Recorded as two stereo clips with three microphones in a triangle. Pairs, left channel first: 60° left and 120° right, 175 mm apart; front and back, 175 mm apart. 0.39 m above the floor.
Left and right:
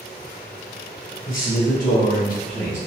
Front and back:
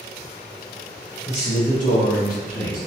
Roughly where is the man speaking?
Ahead left.